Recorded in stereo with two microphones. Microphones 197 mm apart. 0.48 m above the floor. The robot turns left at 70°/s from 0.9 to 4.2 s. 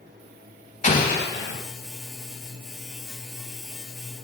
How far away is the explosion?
About 1.0 m.